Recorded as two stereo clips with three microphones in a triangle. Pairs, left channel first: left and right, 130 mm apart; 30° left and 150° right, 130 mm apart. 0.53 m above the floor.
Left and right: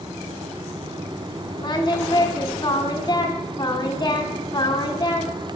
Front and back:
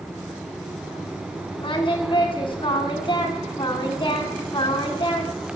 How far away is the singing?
About 1.4 m.